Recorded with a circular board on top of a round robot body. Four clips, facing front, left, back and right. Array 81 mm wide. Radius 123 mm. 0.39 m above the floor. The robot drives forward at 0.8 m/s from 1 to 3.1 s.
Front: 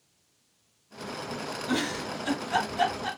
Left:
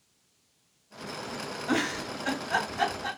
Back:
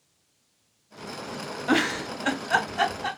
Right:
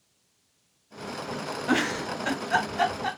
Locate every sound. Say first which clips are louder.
1.7 s a giggle: right 3 dB, back 6 dB; 155° right, 0.9 m; by 3.1 s 170° right, 1.8 m